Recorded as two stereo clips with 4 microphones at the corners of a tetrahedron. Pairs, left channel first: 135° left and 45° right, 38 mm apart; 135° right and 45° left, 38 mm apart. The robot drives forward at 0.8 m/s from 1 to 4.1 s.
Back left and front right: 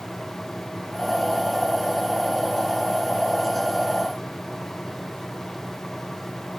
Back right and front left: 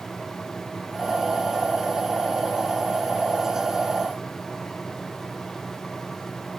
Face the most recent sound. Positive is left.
No sound to turn to.